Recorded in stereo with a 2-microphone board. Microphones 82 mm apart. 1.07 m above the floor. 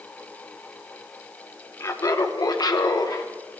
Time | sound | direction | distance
1.8 | laughter | 35° left (ahead or behind) | 0.9 m